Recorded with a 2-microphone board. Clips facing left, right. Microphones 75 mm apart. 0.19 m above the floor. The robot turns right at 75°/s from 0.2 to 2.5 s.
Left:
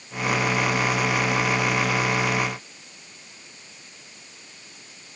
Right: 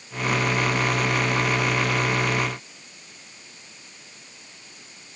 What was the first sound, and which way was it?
Only background noise.